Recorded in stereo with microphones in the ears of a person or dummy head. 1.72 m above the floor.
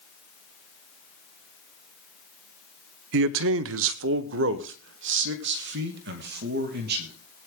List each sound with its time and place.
3.1 s a man speaking: 60° right (ahead or behind), 0.6 m; by 7.1 s 55° right (ahead or behind), 2.5 m